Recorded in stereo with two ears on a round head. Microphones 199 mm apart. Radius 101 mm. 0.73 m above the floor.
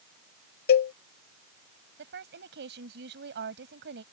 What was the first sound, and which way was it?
A cowbell, 45° left (ahead or behind).